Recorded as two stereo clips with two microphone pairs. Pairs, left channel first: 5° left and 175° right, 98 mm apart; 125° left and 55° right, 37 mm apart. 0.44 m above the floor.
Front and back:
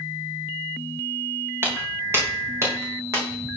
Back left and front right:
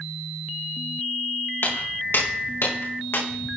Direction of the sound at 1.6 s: 120° left.